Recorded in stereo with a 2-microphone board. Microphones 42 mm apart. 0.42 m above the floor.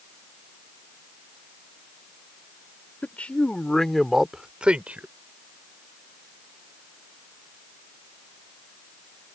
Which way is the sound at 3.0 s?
40° left (ahead or behind).